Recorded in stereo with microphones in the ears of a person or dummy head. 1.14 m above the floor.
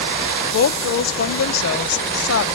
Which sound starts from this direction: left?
A woman speaking, at 0.5 s.